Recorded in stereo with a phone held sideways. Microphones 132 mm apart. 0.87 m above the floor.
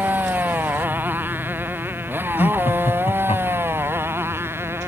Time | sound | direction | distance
0.0 | a motorcycle | 15° right (ahead or behind) | ?
2.4 | laughter | 50° left (ahead or behind) | ?